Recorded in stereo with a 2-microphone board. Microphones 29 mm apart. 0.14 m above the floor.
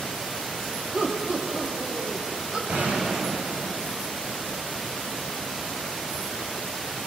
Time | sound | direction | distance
0.9 | laughter | 45° right (ahead or behind) | 5 m
2.7 | a gunshot | 60° right (ahead or behind) | 9.5 m